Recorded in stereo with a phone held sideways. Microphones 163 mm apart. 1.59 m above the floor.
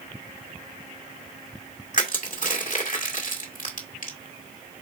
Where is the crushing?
55° left (ahead or behind), 1.8 m.